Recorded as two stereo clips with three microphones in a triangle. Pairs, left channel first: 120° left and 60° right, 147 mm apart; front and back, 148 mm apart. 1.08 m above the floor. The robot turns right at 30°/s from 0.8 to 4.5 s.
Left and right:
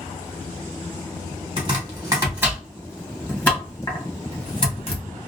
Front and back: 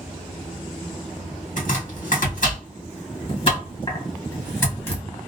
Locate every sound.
1.6 s chopping: 15° right, 1.4 m; by 5.0 s 70° left, 1.4 m